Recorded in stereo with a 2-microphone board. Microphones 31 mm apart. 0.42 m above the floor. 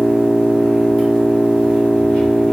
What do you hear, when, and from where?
0.0 s an engine running: 55° left (ahead or behind), 1.6 m